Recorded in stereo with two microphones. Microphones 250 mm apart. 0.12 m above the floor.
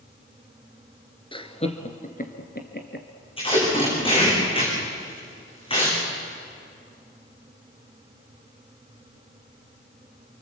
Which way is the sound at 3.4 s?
20° left (ahead or behind).